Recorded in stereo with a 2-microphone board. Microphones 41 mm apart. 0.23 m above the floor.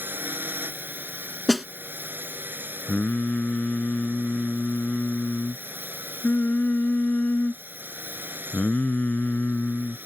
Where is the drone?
55° right (ahead or behind).